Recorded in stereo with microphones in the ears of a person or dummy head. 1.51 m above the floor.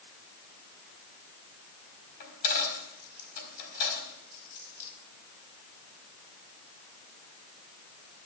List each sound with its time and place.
2.2 s a dropped coin: 50° left (ahead or behind), 4.5 m